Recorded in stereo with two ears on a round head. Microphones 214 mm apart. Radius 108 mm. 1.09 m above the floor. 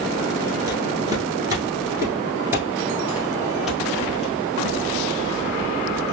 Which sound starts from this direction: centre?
Footsteps, at 0.7 s.